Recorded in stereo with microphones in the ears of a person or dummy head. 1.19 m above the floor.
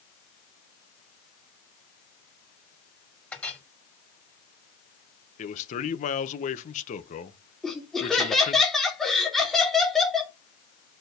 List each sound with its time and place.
3.3 s a clink: 10° left (ahead or behind), 2.5 m
5.4 s a man speaking: 40° left (ahead or behind), 1.3 m
7.6 s laughter: centre (ahead or behind), 3 m